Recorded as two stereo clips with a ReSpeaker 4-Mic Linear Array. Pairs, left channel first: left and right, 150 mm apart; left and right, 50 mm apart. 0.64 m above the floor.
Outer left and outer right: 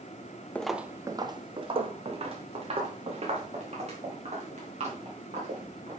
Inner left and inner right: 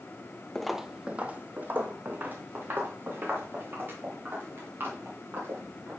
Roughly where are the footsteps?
Centre.